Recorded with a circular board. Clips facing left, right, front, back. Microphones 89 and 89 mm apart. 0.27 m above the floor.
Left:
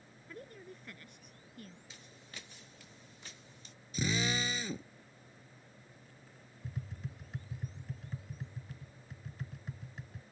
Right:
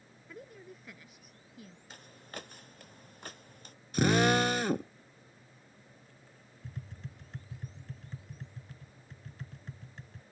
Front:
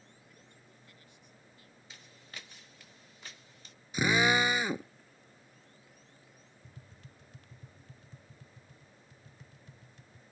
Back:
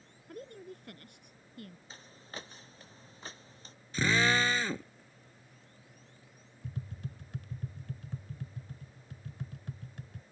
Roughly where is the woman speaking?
Behind.